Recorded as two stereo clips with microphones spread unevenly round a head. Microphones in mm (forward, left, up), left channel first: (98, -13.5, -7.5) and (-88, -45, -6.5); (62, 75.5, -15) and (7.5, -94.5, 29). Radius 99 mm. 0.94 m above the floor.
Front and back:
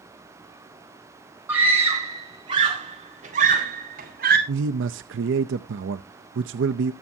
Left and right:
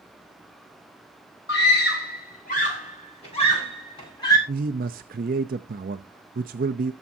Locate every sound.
1.5 s a scream: 110° left, 4.5 m; by 4.4 s 145° left, 5.5 m
4.5 s a man speaking: 160° right, 0.5 m